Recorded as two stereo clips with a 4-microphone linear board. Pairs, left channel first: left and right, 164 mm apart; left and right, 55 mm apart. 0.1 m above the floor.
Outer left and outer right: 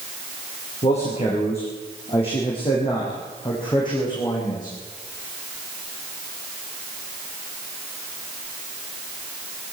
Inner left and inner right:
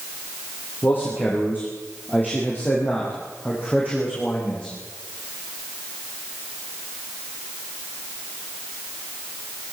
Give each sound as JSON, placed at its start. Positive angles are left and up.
{"t": 0.8, "sound": "a man speaking", "side_deg": 40, "distance_m": 7.0}